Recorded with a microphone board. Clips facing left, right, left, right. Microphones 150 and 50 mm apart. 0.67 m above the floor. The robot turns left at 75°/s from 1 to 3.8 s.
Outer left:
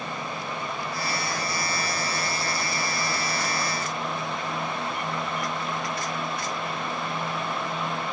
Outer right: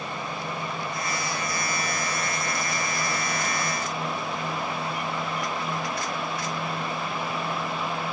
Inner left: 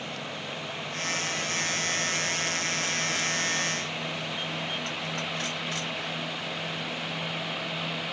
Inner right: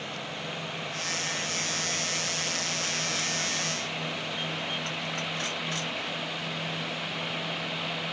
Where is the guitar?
No guitar in this recording.